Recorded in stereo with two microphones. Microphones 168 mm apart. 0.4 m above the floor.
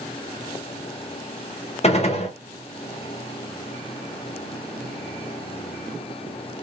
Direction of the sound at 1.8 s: 40° left (ahead or behind).